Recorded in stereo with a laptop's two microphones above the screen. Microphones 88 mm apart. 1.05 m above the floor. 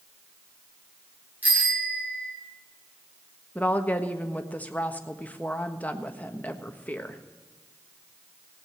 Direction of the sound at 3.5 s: 20° left (ahead or behind).